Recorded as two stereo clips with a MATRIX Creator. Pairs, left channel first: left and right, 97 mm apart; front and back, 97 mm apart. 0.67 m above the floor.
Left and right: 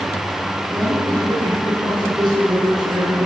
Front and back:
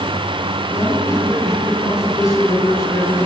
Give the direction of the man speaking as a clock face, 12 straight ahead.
2 o'clock.